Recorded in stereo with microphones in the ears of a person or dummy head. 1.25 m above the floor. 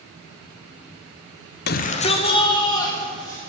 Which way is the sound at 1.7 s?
50° left (ahead or behind).